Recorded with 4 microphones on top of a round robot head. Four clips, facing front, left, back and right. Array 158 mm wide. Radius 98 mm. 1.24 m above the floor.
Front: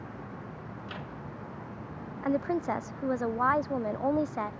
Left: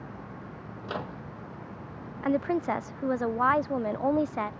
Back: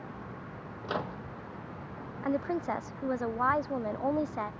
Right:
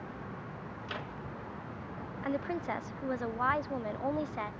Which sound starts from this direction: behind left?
A microwave, at 0.8 s.